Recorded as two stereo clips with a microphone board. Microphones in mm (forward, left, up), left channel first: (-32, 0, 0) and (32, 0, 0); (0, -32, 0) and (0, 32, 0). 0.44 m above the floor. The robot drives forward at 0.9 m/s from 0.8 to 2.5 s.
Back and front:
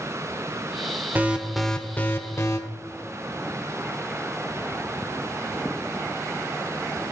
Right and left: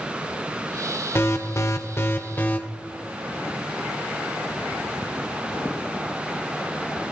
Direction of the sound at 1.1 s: 50° right.